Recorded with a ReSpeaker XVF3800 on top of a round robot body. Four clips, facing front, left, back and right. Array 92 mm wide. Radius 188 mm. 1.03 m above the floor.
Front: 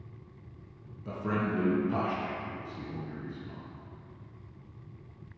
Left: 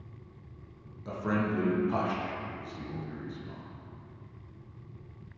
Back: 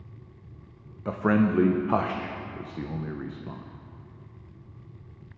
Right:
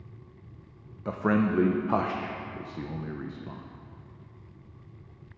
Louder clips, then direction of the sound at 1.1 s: Right 5 dB, back 8 dB; 145° right.